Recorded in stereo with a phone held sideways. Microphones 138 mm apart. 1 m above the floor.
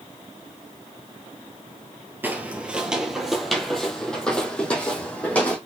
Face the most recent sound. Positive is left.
turn(degrees=10)  # may be behind; listen again after turning